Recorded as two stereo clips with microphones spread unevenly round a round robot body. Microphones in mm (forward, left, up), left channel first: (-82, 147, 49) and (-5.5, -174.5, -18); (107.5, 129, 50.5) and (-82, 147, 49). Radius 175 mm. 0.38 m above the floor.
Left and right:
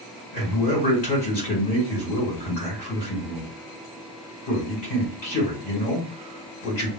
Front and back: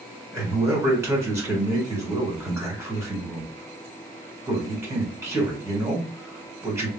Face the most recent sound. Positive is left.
turn(degrees=105)